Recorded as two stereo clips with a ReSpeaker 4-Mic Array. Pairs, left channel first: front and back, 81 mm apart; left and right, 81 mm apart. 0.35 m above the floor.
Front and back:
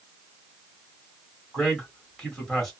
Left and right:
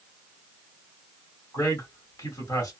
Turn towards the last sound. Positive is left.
turn(degrees=80)